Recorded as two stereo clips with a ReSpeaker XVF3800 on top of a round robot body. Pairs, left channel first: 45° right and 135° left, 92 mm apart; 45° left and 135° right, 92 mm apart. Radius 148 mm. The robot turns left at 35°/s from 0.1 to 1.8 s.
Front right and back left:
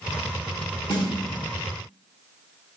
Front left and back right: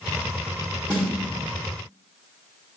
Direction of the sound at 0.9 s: 80° right.